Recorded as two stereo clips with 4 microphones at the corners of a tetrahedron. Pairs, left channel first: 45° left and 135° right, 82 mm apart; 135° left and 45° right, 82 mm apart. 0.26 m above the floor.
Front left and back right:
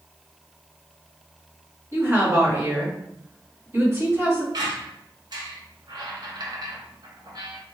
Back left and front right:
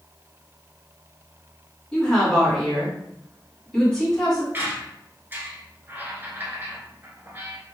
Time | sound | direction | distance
1.9 | a woman speaking | 160° right | 1.8 m
4.5 | a squeak | 110° right | 0.8 m